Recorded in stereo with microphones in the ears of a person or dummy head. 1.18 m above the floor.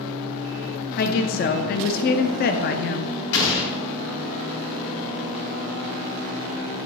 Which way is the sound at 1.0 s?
45° left (ahead or behind).